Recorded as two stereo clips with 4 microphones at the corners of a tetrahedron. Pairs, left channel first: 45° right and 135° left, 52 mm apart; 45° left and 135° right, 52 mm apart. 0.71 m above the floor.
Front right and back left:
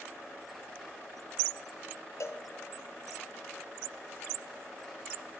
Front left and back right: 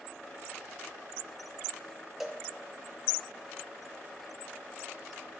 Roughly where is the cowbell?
Ahead right.